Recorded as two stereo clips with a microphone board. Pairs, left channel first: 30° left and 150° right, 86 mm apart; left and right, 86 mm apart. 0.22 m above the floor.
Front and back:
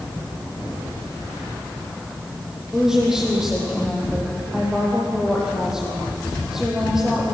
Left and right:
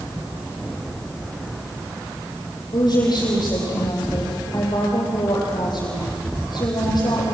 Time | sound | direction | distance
2.7 | a woman speaking | 125° left | 8 m